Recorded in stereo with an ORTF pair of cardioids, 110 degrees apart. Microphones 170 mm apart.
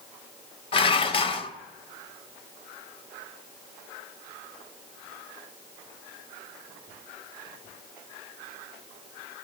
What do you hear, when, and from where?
0.7 s dishes clattering: 30° left, 0.5 m